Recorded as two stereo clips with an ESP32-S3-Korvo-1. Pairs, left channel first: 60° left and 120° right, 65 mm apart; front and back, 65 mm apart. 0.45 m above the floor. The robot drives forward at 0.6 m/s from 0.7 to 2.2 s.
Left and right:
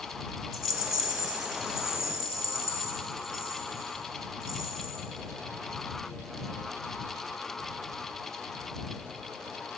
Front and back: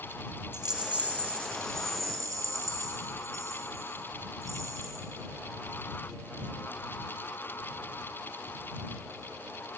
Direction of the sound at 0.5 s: 100° right.